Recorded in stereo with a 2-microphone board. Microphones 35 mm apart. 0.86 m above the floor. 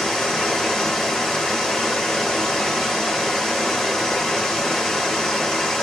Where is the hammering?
No hammering in this recording.